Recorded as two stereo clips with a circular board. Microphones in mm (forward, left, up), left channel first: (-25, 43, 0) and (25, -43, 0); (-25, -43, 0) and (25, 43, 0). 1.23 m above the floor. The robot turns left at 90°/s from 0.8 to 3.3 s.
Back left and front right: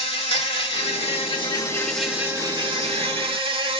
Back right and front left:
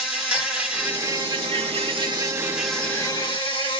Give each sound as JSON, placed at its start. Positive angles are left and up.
{"t": 0.0, "sound": "an insect", "azimuth_deg": 135, "distance_m": 1.7}